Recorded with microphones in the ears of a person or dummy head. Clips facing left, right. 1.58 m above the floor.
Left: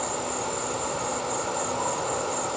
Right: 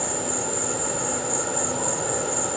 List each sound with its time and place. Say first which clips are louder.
0.0 s an insect: right 2 dB; 10° right (ahead or behind)